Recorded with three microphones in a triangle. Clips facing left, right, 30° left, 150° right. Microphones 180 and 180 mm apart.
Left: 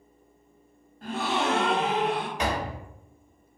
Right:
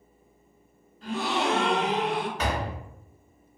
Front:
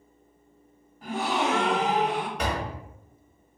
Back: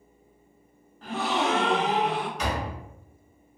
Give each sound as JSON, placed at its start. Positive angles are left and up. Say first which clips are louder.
{"t": 1.0, "sound": "a gasp", "louder": "even, even", "azimuth_deg": 105, "distance_m": 0.7}
{"t": 2.4, "sound": "a door slam", "louder": "left 1 dB, even", "azimuth_deg": 15, "distance_m": 0.9}